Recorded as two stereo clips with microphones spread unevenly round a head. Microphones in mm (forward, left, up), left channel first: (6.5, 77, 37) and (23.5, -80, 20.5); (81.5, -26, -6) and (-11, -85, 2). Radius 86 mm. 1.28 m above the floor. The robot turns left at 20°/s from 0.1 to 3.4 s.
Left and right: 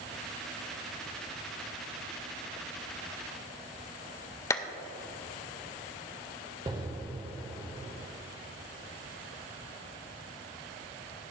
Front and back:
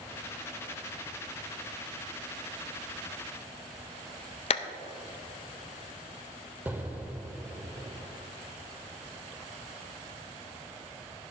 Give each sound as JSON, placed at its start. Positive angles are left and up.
{"t": 4.5, "sound": "a clap", "azimuth_deg": 35, "distance_m": 0.6}
{"t": 6.7, "sound": "an explosion", "azimuth_deg": -130, "distance_m": 1.0}